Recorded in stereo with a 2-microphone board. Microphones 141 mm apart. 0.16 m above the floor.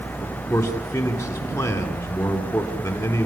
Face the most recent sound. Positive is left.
turn(degrees=20)  # may be behind; listen again after turning